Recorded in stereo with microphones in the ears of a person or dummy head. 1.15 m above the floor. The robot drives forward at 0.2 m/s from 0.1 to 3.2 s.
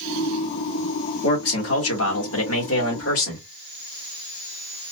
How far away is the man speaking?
About 2.0 m.